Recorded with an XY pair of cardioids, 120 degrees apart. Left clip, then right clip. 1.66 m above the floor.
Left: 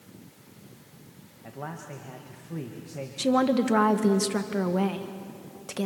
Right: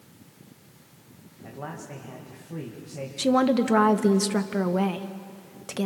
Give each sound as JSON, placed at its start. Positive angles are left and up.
{"t": 1.4, "sound": "a man speaking", "azimuth_deg": 5, "distance_m": 2.0}
{"t": 3.2, "sound": "a woman speaking", "azimuth_deg": -15, "distance_m": 1.4}